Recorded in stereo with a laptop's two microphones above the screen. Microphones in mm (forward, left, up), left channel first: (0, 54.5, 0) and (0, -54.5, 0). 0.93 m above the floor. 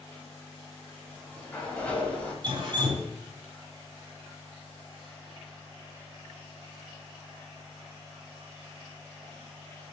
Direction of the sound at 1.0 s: 10° left (ahead or behind).